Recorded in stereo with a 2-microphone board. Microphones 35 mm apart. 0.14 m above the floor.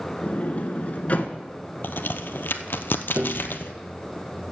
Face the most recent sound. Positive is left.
turn(degrees=-70)  # may be behind; listen again after turning